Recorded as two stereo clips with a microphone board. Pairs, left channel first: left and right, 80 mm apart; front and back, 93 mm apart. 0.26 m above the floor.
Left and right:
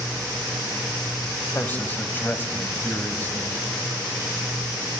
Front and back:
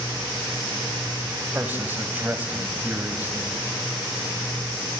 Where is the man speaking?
130° left, 1.7 m.